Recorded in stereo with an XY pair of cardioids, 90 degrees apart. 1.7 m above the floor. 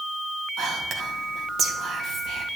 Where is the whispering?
70° right, 3.5 m.